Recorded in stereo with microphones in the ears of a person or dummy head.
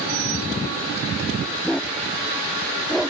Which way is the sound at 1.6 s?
5° left (ahead or behind).